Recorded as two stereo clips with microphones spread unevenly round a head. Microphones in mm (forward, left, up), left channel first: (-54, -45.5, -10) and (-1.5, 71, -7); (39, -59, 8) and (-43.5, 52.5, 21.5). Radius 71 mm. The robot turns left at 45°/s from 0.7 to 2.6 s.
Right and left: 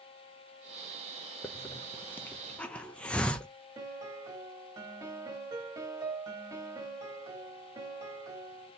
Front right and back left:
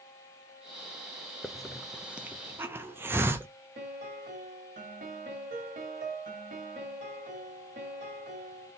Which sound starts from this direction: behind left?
A piano, at 3.8 s.